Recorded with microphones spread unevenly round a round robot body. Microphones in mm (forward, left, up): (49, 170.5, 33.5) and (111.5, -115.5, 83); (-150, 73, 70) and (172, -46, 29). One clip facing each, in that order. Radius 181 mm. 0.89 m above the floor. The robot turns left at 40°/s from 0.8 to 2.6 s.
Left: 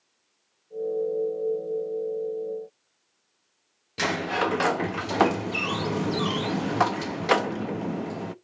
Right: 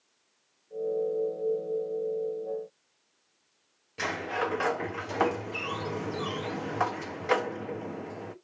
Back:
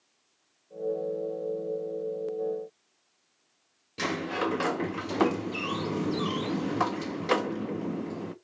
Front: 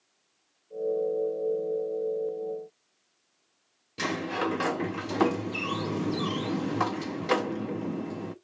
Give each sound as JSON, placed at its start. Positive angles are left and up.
{"t": 4.0, "sound": "a sliding door", "azimuth_deg": 65, "distance_m": 0.8}